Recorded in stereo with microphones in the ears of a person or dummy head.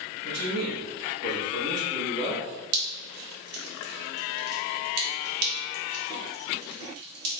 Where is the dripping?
80° right, 1.9 m.